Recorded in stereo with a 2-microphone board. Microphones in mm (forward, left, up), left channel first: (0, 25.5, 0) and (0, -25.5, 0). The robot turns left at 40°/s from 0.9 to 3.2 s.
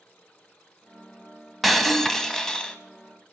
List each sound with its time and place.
1.6 s breaking glass: centre (ahead or behind), 0.8 m; by 2.8 s 15° left (ahead or behind), 0.8 m